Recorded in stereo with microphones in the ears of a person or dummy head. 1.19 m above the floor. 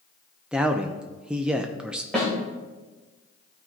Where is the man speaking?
5° right (ahead or behind), 0.5 m.